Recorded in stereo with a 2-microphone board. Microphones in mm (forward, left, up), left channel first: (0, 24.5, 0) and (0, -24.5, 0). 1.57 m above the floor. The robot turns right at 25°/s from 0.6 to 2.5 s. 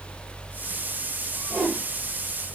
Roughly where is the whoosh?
Centre.